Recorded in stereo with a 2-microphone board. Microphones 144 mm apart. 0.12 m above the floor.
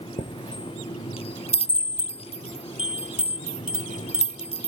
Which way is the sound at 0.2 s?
45° left (ahead or behind).